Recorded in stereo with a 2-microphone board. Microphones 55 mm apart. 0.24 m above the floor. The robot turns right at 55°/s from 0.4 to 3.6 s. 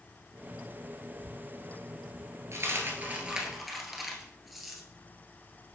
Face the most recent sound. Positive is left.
turn(degrees=0)  # may be behind; listen again after turning